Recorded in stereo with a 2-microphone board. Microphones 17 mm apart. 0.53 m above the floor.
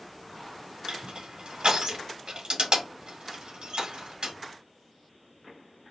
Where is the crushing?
80° right, 1.3 m.